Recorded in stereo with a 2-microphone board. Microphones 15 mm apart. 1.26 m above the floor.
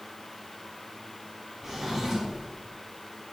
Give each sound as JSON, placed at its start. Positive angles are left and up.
{"t": 1.6, "sound": "a drawer", "side_deg": -25, "distance_m": 3.0}